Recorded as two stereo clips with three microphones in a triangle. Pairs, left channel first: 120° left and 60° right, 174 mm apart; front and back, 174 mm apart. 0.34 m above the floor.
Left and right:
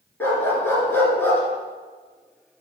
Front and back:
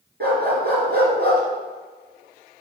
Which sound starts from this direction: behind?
A dog barking, at 0.2 s.